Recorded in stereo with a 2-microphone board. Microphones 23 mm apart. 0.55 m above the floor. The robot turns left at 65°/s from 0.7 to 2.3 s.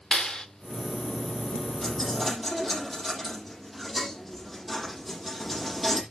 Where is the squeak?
No squeak in this recording.